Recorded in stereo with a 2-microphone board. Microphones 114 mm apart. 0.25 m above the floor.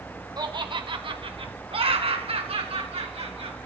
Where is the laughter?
40° right (ahead or behind), 2 m; by 3.6 s 65° right (ahead or behind), 4.5 m.